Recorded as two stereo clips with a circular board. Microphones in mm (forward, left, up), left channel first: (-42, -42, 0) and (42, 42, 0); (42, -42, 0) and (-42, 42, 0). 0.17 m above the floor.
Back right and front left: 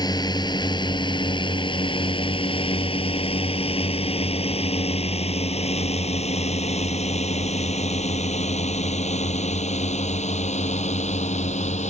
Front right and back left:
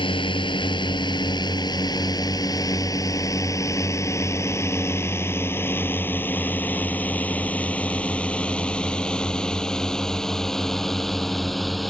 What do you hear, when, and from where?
0.0 s a drone: 85° right; by 11.9 s 135° right